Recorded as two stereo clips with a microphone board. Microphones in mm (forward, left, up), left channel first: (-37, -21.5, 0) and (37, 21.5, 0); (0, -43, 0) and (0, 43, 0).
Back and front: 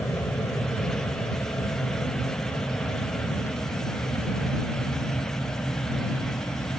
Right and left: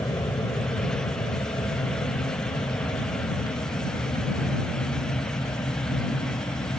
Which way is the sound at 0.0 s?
105° right.